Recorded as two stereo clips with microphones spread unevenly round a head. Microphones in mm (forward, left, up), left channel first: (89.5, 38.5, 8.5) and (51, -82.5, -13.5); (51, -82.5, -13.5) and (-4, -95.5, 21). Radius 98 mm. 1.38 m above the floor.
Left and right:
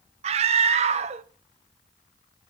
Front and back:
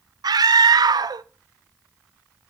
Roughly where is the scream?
Behind right.